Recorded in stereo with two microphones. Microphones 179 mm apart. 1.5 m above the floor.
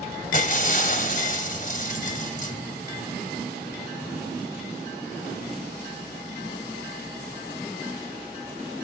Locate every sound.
0.3 s breaking glass: 50° left (ahead or behind), 2 m